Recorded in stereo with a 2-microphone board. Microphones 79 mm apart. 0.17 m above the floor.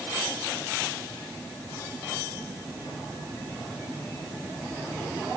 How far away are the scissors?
I don't hear scissors.